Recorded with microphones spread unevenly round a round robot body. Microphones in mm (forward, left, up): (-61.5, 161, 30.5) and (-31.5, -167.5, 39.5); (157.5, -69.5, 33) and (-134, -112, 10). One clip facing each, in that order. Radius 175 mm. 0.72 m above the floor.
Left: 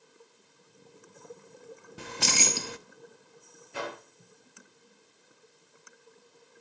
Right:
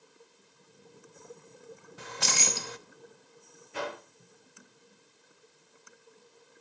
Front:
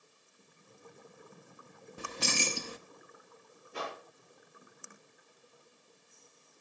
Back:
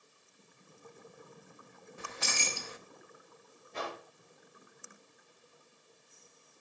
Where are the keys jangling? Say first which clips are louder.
Left 4 dB, front 6 dB; 55° left, 0.7 m.